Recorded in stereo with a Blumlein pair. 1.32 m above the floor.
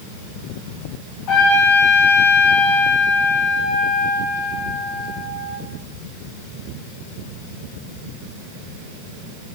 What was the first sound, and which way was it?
A trumpet, 40° left.